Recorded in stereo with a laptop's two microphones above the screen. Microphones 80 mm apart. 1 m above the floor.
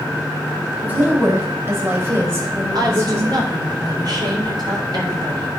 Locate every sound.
0.8 s a woman speaking: 25° right (ahead or behind), 4 m; by 3.4 s 45° right (ahead or behind), 6.5 m
2.8 s a woman speaking: 60° right (ahead or behind), 3 m